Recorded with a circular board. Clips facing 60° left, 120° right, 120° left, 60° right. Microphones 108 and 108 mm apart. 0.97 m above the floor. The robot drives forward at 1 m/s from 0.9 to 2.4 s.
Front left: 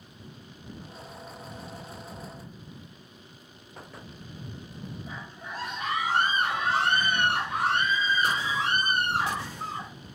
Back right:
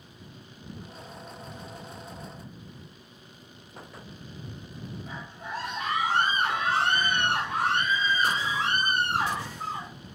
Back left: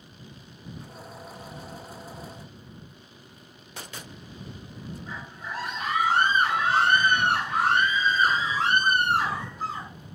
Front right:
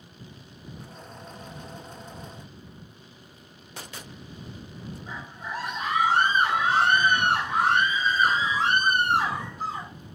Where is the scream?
130° right, 3.5 m.